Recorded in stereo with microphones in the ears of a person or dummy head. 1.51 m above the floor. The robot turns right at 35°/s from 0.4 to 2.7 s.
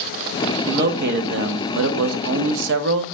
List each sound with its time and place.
0.7 s a man speaking: 140° right, 0.5 m; by 3.1 s 70° right, 0.5 m